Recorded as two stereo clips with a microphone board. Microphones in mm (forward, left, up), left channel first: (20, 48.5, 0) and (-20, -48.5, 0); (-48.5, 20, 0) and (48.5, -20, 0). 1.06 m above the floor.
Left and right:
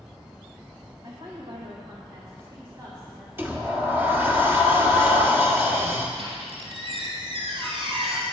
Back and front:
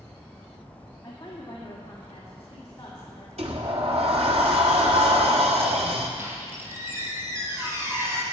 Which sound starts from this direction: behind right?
A woman speaking, at 1.0 s.